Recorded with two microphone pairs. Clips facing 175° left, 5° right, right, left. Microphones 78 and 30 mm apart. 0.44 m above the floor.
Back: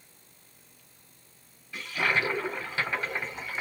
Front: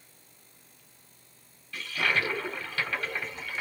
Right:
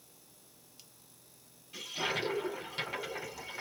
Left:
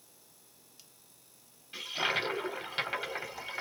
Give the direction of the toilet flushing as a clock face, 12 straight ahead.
8 o'clock.